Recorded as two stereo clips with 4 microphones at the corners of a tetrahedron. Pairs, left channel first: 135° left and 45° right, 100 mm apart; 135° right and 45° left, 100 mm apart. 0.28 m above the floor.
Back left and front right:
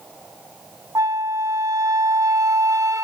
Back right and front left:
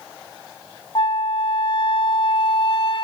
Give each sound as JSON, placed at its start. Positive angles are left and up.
{"t": 0.9, "sound": "a flute", "azimuth_deg": -100, "distance_m": 0.5}